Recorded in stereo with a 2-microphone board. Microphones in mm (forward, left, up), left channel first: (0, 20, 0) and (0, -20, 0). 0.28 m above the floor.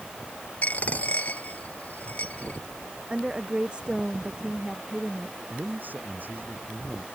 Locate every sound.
0.6 s a dropped coin: 40° left (ahead or behind)
3.1 s a woman speaking: 25° right (ahead or behind)
5.5 s a man speaking: 50° right (ahead or behind)